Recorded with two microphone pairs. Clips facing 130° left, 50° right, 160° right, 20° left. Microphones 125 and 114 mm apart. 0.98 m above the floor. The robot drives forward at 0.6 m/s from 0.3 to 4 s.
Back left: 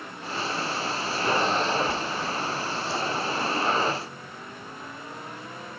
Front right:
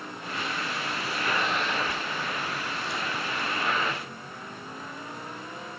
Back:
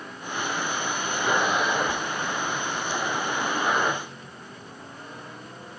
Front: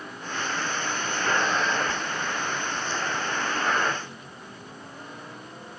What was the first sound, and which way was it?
Only background noise.